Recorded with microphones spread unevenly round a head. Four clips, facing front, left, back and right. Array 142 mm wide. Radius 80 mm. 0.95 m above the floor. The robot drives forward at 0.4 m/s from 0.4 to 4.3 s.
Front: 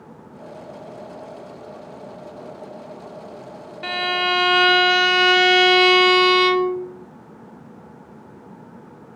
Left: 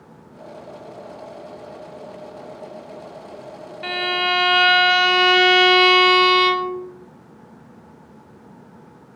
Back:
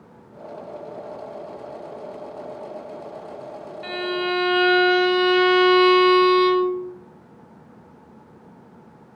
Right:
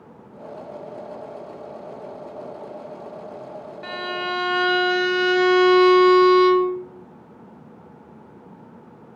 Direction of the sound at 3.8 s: 35° left.